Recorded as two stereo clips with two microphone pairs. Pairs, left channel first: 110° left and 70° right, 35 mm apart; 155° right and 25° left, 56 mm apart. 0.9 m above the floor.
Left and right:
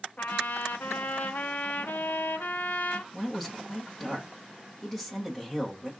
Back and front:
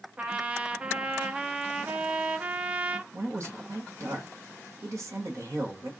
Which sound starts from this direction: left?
A trumpet, at 0.2 s.